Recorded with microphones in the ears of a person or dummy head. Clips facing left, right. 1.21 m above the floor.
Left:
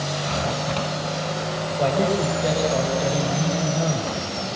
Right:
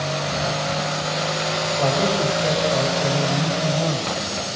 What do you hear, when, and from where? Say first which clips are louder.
1.8 s a man speaking: left 1 dB; 15° left (ahead or behind), 8 m